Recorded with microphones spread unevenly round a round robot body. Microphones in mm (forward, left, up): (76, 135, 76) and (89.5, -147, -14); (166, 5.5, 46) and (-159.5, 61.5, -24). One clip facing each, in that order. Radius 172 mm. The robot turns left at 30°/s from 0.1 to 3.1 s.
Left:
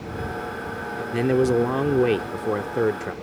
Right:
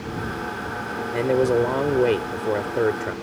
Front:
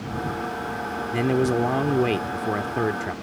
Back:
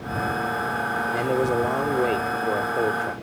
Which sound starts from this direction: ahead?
A man speaking, at 1.1 s.